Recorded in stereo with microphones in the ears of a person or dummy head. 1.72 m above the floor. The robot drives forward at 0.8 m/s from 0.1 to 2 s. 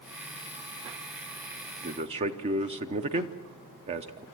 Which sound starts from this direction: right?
A man speaking, at 1.8 s.